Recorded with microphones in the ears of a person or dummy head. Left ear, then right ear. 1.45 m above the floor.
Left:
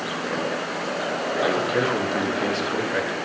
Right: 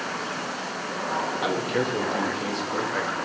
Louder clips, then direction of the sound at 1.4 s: Left 4 dB; 20° right (ahead or behind).